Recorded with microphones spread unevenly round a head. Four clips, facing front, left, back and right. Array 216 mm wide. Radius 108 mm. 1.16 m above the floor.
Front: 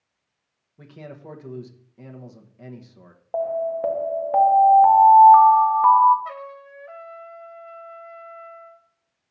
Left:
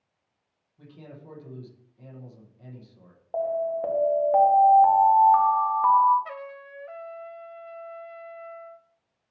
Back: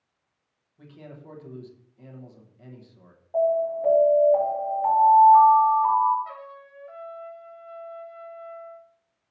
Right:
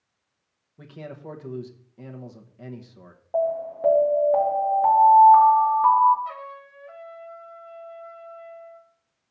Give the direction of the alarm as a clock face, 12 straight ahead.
12 o'clock.